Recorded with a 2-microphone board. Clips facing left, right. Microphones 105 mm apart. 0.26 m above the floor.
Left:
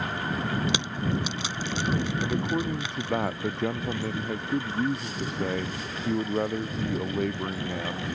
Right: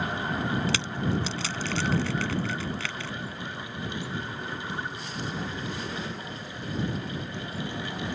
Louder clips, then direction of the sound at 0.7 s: Even; 15° left (ahead or behind).